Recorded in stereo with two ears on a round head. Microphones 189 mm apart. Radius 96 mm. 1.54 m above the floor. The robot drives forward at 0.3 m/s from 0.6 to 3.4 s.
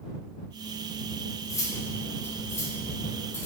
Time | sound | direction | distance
1.5 | cutlery clinking | 15° left (ahead or behind) | 1.4 m